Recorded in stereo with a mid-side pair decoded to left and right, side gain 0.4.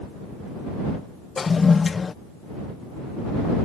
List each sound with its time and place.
1.4 s a toilet flushing: 40° left